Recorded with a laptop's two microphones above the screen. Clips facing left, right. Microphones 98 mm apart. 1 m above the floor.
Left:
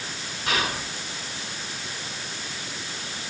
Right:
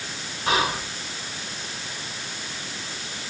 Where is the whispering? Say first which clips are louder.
Right 4 dB; 35° right (ahead or behind), 4 m.